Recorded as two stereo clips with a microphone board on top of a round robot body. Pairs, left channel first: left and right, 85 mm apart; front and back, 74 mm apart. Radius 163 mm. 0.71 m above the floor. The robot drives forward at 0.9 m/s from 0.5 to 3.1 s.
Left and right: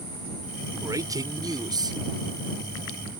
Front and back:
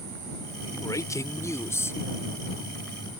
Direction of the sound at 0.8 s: 40° right.